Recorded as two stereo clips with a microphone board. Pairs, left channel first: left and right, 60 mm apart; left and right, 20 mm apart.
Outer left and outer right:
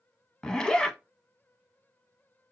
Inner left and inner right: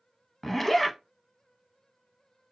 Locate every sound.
0.4 s a zipper: 15° left (ahead or behind), 0.5 m